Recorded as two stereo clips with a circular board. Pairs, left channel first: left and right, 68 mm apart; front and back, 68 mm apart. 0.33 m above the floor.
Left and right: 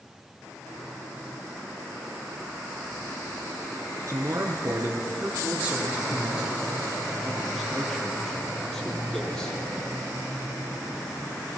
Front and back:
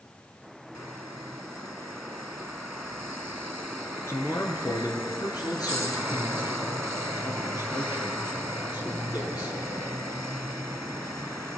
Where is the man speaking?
45° right, 4.5 m; by 9.6 s 10° left, 9 m.